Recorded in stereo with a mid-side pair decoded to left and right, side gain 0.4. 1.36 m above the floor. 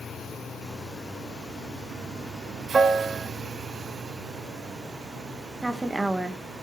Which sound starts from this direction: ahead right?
A piano, at 2.7 s.